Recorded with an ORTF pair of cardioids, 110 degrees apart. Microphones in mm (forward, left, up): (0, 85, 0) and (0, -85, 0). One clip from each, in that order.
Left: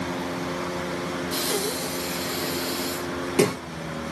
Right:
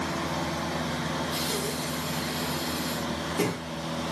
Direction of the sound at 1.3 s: 50° left.